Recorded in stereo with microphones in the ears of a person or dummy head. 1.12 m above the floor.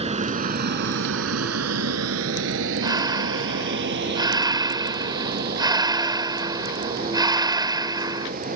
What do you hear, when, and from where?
0.0 s a vehicle: 30° right (ahead or behind); by 8.6 s 45° right (ahead or behind)
2.8 s breathing: 20° right (ahead or behind)